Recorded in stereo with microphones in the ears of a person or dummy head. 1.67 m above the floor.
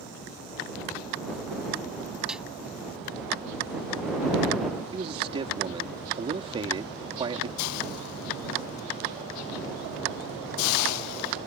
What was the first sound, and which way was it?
A snare drum, centre (ahead or behind).